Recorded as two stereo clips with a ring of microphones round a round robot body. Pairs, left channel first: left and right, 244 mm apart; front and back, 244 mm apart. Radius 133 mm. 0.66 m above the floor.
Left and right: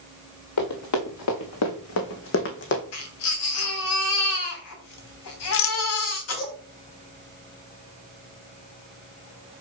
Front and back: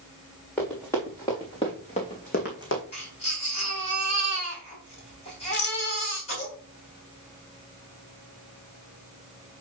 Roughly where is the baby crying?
Left.